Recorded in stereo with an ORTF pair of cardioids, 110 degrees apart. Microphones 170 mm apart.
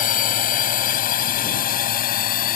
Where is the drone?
55° left; by 2.6 s 60° left.